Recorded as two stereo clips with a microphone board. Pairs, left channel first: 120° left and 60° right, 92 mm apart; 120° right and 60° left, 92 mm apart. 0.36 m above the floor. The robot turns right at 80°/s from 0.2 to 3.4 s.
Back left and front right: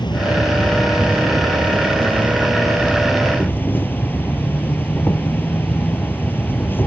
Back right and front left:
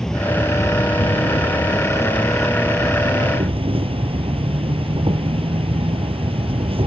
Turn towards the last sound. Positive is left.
turn(degrees=50)